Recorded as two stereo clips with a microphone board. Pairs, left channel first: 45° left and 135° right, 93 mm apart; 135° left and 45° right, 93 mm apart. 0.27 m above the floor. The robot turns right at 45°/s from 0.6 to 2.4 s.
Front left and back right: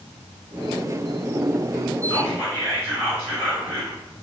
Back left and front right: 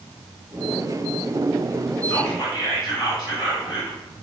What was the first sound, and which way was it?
Whispering, 90° left.